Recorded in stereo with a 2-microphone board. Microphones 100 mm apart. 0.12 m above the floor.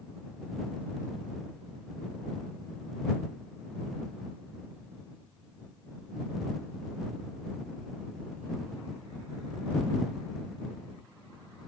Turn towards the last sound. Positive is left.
No sound to turn to.